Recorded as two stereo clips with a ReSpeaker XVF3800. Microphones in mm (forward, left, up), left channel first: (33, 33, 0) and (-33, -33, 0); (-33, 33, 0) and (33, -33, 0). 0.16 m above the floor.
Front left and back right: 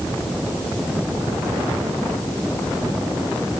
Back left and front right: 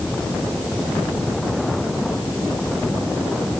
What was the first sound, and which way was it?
Only background noise.